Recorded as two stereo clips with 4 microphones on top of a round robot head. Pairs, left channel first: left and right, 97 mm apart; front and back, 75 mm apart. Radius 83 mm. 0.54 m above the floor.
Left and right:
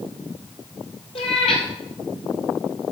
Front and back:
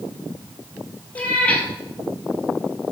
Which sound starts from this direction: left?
A cat meowing, at 1.1 s.